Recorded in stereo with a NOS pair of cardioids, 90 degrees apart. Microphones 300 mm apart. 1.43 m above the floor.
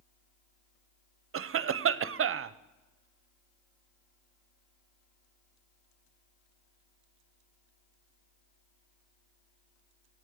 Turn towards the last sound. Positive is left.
turn(degrees=-45)